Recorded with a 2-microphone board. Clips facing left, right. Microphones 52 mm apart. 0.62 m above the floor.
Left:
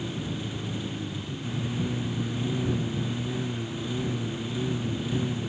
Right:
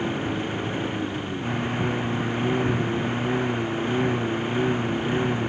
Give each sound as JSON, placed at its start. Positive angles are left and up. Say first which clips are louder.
{"t": 0.0, "sound": "a lawn mower", "louder": "right 7 dB", "side_deg": -45}